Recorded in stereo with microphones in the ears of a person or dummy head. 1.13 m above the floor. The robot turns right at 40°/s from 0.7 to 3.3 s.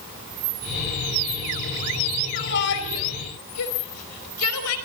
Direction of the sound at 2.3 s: 50° left (ahead or behind).